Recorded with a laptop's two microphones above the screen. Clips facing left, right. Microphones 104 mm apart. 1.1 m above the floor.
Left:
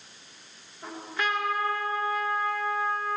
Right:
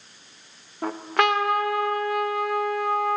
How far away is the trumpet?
About 0.7 m.